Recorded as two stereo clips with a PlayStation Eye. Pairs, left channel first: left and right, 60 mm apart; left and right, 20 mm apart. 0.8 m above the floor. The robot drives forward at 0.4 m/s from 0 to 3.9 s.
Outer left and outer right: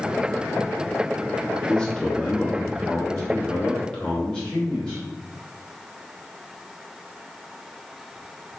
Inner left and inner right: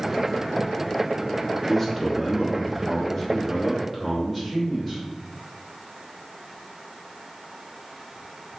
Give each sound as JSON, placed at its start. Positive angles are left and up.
{"t": 1.7, "sound": "a man speaking", "side_deg": 20, "distance_m": 1.2}